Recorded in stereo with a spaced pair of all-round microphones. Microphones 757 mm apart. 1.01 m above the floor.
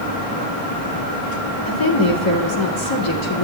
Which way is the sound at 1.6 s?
40° left (ahead or behind).